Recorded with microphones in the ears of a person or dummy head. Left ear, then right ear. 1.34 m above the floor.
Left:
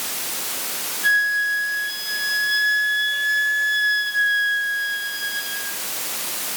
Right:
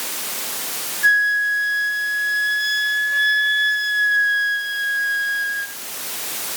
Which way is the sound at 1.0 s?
50° right (ahead or behind).